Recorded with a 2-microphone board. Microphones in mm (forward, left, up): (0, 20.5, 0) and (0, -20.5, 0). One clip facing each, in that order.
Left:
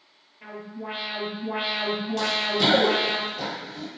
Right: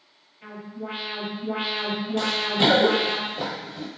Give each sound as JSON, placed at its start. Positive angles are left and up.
{"t": 0.4, "sound": "an alarm", "side_deg": 70, "distance_m": 1.7}
{"t": 2.2, "sound": "running footsteps", "side_deg": -20, "distance_m": 1.1}